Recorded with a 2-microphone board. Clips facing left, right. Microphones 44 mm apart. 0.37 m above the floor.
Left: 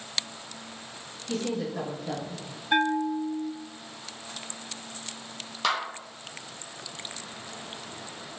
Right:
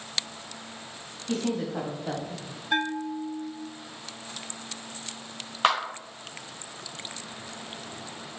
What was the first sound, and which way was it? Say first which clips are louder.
A woman speaking: right 2 dB; 45° right (ahead or behind).